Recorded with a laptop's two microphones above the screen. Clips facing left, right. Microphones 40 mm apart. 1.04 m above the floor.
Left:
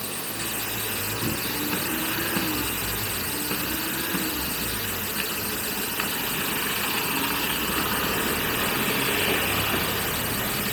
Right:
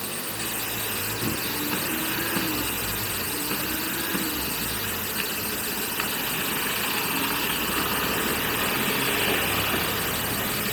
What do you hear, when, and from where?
Only background noise.